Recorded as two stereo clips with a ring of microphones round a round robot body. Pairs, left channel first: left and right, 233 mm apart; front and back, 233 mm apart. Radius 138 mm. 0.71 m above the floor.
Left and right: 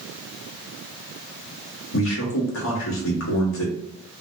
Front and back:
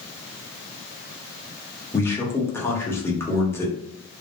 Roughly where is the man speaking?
Left.